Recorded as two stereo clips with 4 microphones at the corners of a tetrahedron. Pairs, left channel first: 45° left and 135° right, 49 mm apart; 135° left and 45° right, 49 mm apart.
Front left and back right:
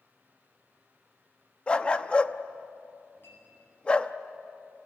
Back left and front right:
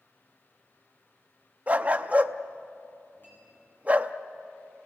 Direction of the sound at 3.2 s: 90° left.